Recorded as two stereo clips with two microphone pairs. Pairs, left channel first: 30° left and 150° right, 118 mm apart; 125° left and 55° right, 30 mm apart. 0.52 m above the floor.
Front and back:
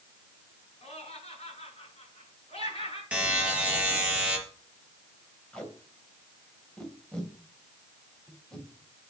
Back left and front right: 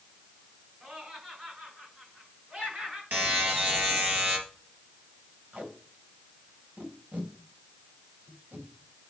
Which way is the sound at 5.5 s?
55° right.